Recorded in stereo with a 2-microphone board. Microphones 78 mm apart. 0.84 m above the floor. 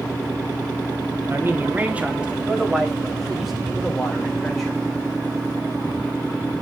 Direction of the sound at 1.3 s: 30° right (ahead or behind).